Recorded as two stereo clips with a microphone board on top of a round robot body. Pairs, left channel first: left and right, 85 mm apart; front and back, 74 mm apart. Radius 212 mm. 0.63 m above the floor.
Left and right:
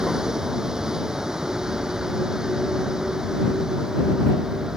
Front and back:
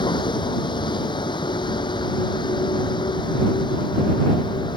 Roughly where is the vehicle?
Ahead.